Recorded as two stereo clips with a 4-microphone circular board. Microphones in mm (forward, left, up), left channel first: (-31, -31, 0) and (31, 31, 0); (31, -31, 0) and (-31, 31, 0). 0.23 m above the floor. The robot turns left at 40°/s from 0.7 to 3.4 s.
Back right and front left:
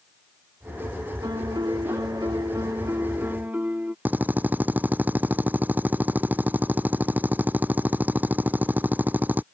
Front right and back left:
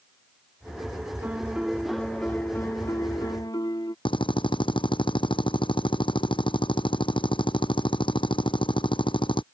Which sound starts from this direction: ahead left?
A piano, at 1.2 s.